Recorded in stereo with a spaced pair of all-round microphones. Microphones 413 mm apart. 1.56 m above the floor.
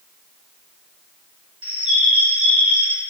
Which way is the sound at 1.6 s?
30° right (ahead or behind).